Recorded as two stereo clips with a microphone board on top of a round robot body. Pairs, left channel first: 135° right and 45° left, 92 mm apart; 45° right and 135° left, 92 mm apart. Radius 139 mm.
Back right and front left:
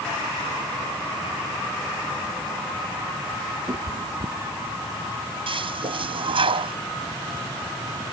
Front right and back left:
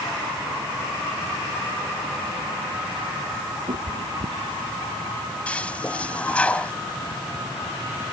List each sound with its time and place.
3.7 s a cat meowing: 110° left
5.5 s a toilet flushing: 30° left